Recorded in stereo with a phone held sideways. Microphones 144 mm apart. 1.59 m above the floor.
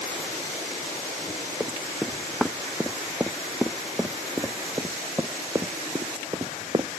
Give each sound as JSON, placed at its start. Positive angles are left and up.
{"t": 1.6, "sound": "running footsteps", "side_deg": 5}